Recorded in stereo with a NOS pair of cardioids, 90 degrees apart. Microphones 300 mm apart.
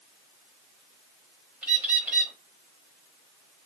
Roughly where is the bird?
Ahead.